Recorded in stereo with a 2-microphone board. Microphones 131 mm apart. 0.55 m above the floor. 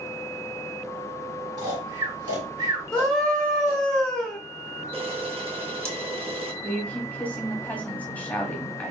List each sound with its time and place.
1.6 s snoring: 35° right (ahead or behind), 1.8 m
2.9 s a scream: 5° left (ahead or behind), 0.7 m
4.9 s a camera shutter: 45° right (ahead or behind), 0.7 m
6.6 s a woman speaking: 10° left (ahead or behind), 1.2 m